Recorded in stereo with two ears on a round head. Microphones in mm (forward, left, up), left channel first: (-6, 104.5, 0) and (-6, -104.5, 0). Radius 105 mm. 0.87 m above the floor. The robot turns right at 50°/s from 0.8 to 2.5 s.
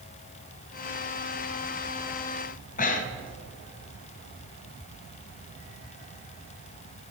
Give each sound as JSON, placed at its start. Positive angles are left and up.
{"t": 2.8, "sound": "breathing", "side_deg": 35, "distance_m": 0.7}